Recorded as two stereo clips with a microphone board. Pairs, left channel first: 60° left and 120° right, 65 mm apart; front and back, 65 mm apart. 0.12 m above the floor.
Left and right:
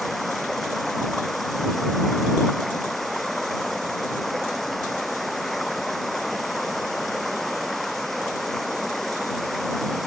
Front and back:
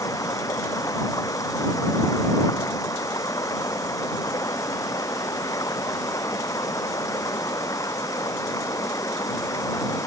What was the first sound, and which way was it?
Running water, 25° right.